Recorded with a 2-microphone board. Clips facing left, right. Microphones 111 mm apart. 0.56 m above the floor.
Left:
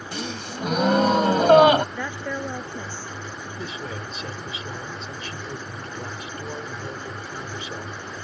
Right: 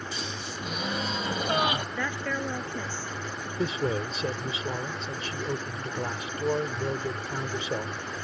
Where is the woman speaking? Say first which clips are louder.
Left 1 dB; 15° left (ahead or behind).